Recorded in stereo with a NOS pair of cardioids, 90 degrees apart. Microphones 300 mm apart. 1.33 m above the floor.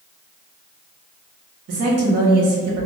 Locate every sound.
1.7 s a woman speaking: 55° right, 1.4 m